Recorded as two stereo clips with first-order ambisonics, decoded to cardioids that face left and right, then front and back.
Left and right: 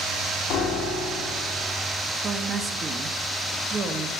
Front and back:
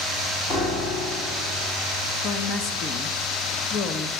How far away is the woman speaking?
About 0.9 m.